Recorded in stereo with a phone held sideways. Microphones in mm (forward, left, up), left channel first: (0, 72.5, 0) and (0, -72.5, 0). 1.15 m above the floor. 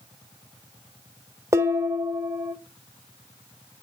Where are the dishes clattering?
20° right (ahead or behind), 1.3 m.